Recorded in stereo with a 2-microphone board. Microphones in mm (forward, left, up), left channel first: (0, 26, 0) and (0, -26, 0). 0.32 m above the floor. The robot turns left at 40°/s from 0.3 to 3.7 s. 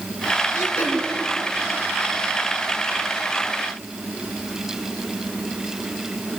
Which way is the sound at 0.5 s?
70° left (ahead or behind).